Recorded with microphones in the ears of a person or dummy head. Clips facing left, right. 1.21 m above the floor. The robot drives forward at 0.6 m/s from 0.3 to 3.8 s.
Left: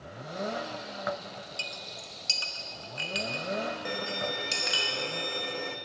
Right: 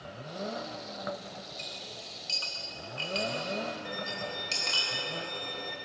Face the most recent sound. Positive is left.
turn(degrees=45)  # may be behind; listen again after turning